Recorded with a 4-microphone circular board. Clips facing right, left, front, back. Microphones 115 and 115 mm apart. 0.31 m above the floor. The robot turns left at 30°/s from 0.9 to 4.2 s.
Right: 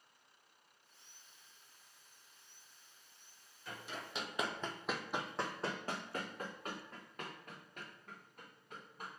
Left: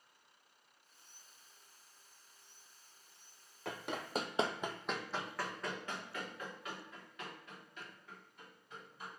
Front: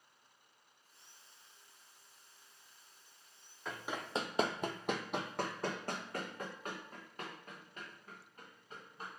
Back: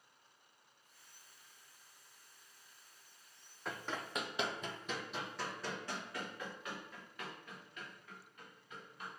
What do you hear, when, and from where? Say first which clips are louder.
3.6 s running footsteps: left 6 dB, front 1 dB; 95° left, 0.7 m; by 9.1 s 55° right, 3 m